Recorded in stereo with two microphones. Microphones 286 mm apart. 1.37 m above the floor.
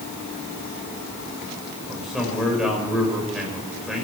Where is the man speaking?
Centre (ahead or behind), 6.5 m.